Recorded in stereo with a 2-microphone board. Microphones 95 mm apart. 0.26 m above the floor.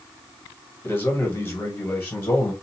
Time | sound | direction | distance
0.8 | a man speaking | 25° left (ahead or behind) | 1.3 m